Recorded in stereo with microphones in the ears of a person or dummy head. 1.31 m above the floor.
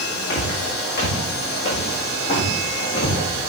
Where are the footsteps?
50° left (ahead or behind), 3 m; by 3.2 s 45° left (ahead or behind), 5.5 m.